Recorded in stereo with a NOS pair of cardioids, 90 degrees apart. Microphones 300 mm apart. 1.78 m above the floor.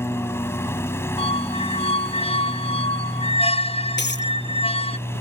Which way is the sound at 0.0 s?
10° left.